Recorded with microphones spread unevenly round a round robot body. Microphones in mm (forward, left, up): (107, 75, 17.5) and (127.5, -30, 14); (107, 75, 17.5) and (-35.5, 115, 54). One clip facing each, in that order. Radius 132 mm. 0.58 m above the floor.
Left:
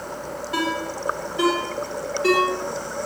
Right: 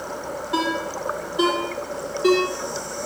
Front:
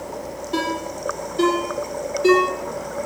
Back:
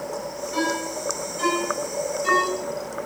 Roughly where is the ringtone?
Ahead.